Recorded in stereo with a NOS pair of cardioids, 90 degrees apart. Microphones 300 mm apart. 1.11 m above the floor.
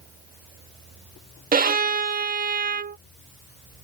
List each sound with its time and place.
1.5 s a violin: 30° right